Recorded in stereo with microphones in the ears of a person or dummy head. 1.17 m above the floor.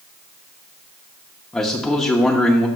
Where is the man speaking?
5° left (ahead or behind), 0.8 m.